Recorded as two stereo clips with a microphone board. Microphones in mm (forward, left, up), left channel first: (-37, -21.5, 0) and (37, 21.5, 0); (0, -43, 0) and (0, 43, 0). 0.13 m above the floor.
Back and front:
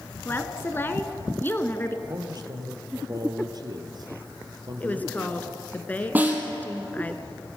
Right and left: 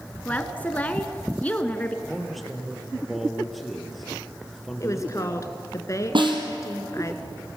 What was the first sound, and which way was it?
A woman speaking, 135° right.